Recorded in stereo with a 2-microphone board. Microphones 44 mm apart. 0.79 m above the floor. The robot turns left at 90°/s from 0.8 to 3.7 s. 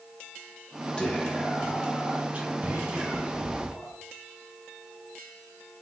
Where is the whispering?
30° left, 1.0 m; by 3.9 s 145° left, 1.0 m.